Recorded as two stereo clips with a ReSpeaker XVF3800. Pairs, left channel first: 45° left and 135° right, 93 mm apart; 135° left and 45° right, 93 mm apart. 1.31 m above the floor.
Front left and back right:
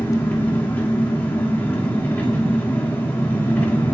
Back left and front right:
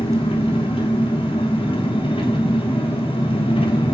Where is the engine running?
115° left, 5.5 m.